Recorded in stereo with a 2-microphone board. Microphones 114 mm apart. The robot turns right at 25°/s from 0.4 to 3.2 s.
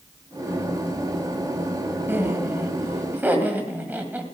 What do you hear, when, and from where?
2.1 s laughter: 20° right (ahead or behind), 1.5 m; by 4.2 s 15° right (ahead or behind), 1.5 m